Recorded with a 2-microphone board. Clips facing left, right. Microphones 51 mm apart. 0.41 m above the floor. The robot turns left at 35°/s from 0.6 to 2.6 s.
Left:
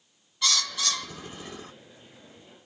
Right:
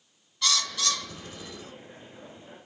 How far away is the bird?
About 1.6 m.